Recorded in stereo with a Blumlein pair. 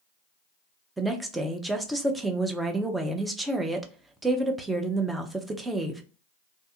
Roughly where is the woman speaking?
Ahead.